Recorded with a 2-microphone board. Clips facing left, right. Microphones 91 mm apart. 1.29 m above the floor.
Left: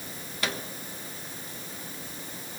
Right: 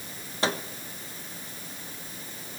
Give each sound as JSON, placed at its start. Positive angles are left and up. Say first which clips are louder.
{"t": 0.4, "sound": "a microwave", "louder": "right 5 dB", "side_deg": -35, "distance_m": 1.2}